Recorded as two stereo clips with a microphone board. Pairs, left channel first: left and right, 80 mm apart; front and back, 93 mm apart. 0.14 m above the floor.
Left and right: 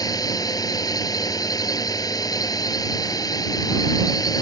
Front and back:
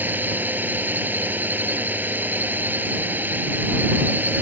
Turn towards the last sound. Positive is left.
turn(degrees=115)